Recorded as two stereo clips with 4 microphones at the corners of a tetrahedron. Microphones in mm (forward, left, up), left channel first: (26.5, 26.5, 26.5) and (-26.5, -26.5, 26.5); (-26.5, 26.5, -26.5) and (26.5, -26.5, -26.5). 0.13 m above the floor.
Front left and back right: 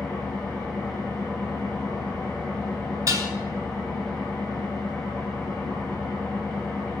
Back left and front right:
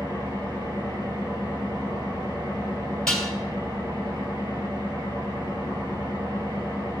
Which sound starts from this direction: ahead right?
An engine running, at 0.0 s.